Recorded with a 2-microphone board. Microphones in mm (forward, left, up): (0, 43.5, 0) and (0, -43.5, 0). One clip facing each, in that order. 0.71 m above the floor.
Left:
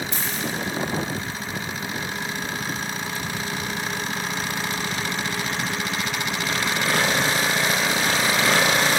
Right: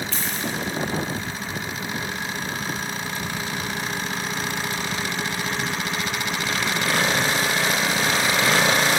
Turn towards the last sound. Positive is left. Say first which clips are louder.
# even
turn(degrees=15)  # may be behind; listen again after turning